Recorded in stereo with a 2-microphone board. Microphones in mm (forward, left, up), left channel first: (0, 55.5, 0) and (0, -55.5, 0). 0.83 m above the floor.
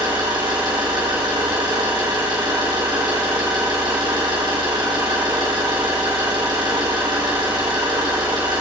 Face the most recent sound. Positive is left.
turn(degrees=-50)  # may be behind; listen again after turning